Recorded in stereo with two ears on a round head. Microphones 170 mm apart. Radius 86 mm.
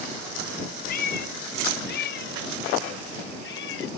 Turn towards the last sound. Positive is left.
turn(degrees=70)  # may be behind; listen again after turning